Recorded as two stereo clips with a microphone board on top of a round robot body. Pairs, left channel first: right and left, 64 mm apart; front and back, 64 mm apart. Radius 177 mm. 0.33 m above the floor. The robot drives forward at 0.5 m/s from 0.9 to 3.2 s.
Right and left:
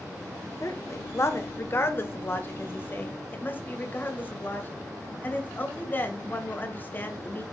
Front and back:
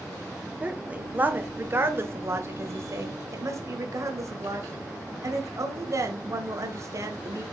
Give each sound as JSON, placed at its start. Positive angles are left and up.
{"t": 0.6, "sound": "a woman speaking", "azimuth_deg": -115, "distance_m": 1.7}